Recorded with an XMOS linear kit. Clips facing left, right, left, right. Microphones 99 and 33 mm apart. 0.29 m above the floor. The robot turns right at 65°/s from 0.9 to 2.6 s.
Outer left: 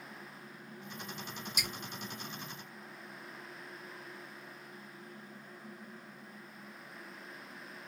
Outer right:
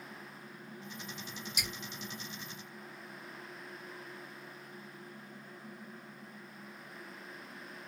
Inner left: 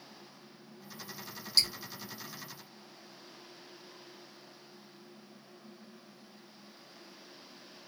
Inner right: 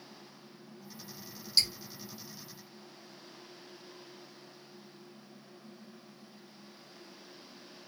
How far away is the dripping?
About 1.6 m.